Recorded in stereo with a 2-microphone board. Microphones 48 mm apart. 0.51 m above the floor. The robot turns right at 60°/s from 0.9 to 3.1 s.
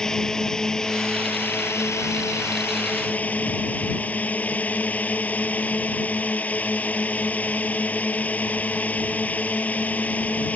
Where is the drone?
15° left; by 10.6 s 145° left.